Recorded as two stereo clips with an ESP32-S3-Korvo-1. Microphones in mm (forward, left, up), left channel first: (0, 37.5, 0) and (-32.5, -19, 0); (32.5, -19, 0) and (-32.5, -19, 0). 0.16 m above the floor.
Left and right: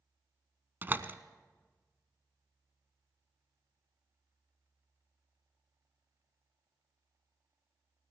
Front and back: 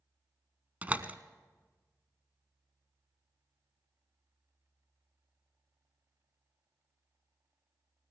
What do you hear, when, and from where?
0.8 s a door slam: 135° right, 0.9 m